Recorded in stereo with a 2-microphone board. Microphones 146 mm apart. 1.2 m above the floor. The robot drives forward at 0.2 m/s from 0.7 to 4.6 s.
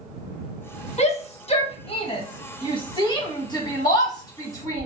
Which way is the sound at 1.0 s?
50° left (ahead or behind).